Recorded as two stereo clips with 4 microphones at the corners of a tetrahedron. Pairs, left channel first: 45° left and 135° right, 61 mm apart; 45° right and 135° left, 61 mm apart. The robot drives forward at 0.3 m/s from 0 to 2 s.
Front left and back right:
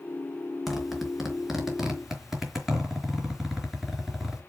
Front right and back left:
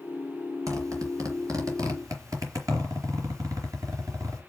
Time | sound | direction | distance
0.7 | a zipper | 140° left | 4 m